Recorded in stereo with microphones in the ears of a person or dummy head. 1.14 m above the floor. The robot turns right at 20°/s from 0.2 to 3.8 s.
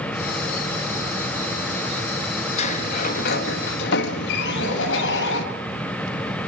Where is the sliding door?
35° left (ahead or behind), 1.4 m; by 5.5 s 60° left (ahead or behind), 1.4 m.